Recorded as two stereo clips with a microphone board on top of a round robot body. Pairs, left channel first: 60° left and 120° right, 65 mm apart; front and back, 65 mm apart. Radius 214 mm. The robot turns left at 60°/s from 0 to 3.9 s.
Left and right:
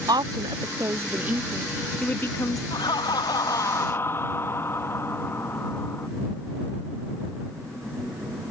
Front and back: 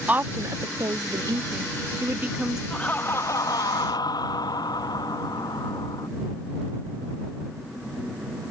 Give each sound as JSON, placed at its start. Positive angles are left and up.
{"t": 0.1, "sound": "a woman speaking", "azimuth_deg": -115}
{"t": 2.7, "sound": "laughter", "azimuth_deg": 75}